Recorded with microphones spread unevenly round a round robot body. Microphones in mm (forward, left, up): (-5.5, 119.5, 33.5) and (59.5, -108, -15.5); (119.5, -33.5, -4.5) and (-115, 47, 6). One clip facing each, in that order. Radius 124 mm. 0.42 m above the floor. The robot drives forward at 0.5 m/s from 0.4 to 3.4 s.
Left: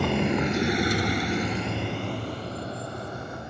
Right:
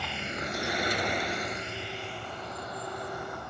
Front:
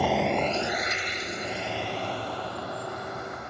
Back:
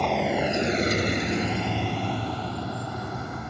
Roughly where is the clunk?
I don't hear a clunk.